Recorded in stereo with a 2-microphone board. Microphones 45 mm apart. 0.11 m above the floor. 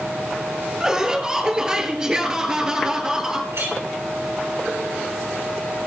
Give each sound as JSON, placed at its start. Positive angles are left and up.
{"t": 0.8, "sound": "laughter", "side_deg": -15, "distance_m": 1.8}
{"t": 3.5, "sound": "a clink", "side_deg": -80, "distance_m": 6.5}